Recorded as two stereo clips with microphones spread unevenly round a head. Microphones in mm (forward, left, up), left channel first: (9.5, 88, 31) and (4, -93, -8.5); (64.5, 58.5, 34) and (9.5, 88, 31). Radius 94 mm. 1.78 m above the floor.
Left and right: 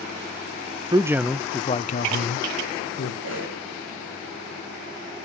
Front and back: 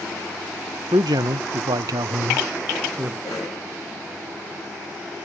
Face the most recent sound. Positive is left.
turn(degrees=-75)